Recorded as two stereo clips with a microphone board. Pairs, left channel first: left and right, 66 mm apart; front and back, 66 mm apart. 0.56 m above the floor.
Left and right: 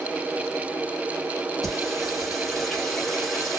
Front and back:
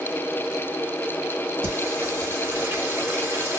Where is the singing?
175° left, 1.5 m.